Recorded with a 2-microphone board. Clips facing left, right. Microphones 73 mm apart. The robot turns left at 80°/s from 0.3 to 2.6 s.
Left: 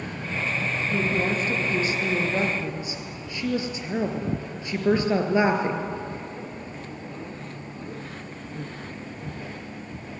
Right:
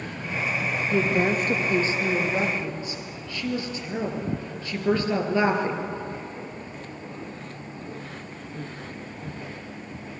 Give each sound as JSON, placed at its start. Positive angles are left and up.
{"t": 0.9, "sound": "a woman speaking", "side_deg": -55, "distance_m": 3.0}